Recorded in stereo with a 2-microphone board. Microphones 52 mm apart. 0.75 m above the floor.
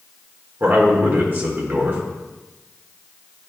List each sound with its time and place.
0.6 s a man speaking: 45° right (ahead or behind), 1.4 m